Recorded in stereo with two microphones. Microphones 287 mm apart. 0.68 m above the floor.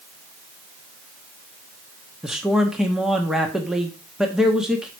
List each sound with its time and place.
2.2 s a man speaking: centre (ahead or behind), 1.3 m